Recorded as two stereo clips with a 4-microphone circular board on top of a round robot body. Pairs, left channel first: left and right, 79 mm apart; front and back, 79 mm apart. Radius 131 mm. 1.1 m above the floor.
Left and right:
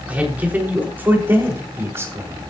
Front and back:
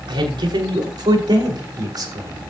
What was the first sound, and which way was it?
A man speaking, 160° right.